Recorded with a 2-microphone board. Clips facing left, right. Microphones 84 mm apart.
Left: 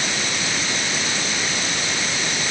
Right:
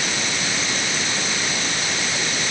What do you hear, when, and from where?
Only background noise.